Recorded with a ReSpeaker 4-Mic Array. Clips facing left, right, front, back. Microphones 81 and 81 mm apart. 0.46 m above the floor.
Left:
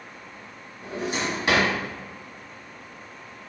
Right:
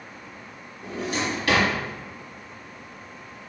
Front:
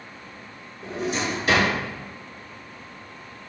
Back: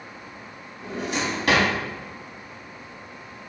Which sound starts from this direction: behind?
A drawer, at 0.8 s.